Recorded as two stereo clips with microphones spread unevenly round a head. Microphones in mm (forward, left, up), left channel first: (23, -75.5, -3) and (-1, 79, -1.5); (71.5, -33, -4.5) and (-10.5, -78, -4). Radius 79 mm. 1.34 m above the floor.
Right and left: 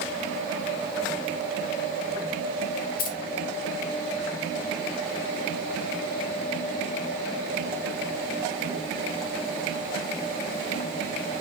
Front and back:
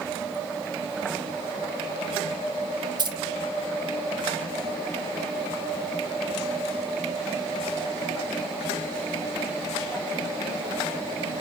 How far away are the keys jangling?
About 0.7 m.